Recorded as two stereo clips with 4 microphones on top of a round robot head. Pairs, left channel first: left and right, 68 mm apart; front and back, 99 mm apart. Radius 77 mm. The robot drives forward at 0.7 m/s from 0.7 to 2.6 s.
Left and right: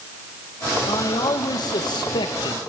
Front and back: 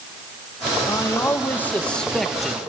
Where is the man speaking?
60° left, 2 m; by 2.6 s 95° left, 1.9 m.